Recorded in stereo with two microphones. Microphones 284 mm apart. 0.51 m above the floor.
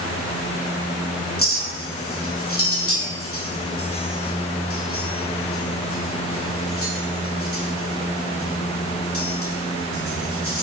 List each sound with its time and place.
1.4 s a clink: 50° left (ahead or behind), 1.4 m